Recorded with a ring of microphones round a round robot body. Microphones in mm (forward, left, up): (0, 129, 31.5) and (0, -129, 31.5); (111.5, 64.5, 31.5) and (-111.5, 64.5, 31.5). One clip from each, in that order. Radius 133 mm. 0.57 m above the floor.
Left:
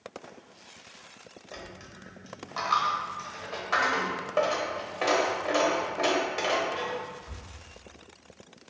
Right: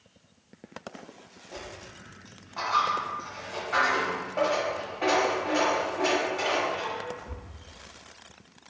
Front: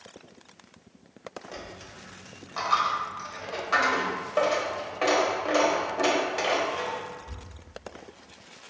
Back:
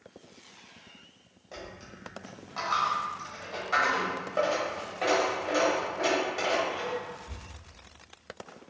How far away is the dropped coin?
About 0.9 m.